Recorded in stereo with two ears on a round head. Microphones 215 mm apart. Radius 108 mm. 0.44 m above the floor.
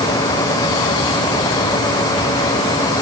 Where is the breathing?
I don't hear breathing.